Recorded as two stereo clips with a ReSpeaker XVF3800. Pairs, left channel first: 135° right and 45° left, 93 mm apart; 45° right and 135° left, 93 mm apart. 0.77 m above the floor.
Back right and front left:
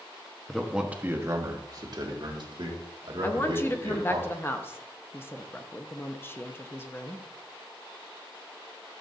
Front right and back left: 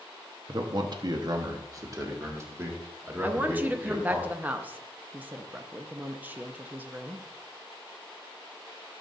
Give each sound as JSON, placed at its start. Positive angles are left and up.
{"t": 0.5, "sound": "a man speaking", "azimuth_deg": 145, "distance_m": 0.8}
{"t": 3.2, "sound": "a woman speaking", "azimuth_deg": -170, "distance_m": 0.7}